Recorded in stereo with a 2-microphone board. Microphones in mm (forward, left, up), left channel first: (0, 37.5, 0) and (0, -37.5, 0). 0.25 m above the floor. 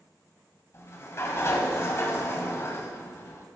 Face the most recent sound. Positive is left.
turn(degrees=40)  # may be behind; listen again after turning